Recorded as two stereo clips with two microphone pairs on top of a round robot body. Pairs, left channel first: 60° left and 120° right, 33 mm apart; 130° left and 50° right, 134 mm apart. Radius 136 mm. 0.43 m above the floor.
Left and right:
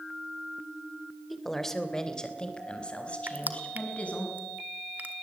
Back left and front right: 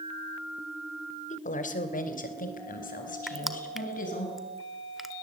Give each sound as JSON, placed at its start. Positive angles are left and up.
{"t": 1.3, "sound": "a woman speaking", "azimuth_deg": 150, "distance_m": 2.5}
{"t": 3.3, "sound": "crushing", "azimuth_deg": -135, "distance_m": 1.9}